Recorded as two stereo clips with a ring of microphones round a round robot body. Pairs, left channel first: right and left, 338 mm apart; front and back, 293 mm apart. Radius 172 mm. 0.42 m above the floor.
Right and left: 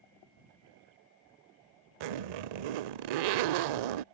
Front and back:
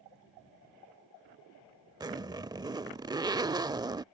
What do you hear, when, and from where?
2.0 s a zipper: 100° left